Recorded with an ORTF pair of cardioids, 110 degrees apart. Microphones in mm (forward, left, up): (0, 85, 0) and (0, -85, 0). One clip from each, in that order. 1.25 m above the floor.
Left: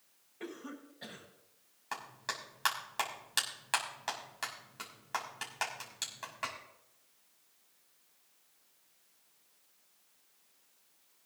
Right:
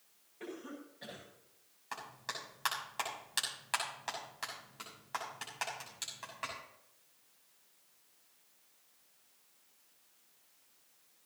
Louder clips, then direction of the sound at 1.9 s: Left 3 dB; 25° left.